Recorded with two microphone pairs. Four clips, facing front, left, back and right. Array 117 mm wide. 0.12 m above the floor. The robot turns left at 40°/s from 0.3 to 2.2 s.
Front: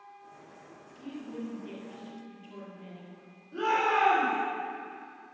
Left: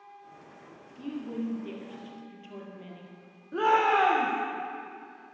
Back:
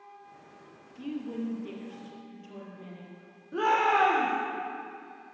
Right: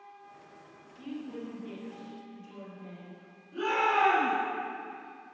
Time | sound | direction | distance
1.0 | a woman speaking | 155° left | 3.5 m
3.5 | a shout | 125° left | 4 m